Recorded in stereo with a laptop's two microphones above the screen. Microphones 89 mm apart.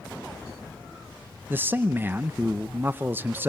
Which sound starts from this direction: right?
A man speaking, at 1.5 s.